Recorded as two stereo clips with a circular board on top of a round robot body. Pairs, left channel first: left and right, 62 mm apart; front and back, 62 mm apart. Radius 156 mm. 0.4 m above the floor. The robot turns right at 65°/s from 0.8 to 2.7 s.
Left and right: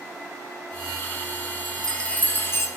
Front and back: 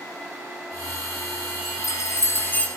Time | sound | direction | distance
1.6 | a chime | 5° right | 2 m